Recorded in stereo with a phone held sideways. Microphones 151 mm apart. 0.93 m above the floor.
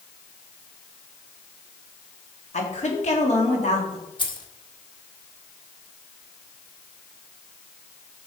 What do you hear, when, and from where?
2.5 s a woman speaking: 55° left (ahead or behind), 2.0 m
4.2 s keys jangling: 35° left (ahead or behind), 1.3 m